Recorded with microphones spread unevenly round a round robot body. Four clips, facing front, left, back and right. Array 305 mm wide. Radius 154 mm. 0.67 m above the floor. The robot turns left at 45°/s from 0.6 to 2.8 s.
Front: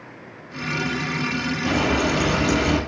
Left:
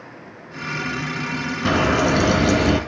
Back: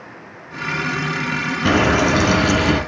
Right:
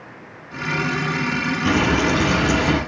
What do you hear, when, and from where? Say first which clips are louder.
1.6 s frying: left 1 dB, back 6 dB; 150° left, 3 m; by 2.8 s 100° left, 3 m